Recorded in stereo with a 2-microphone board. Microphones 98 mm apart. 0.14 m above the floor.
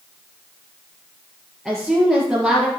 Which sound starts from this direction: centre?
A woman speaking, at 1.6 s.